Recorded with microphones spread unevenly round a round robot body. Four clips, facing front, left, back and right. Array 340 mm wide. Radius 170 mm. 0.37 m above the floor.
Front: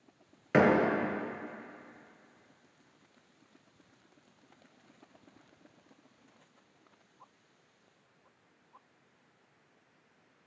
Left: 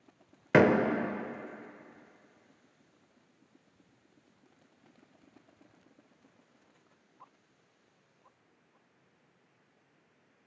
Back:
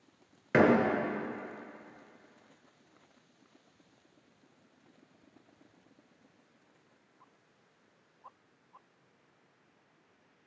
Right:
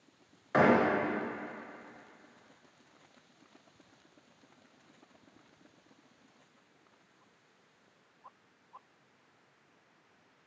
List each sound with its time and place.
0.5 s a door slam: 90° left, 0.8 m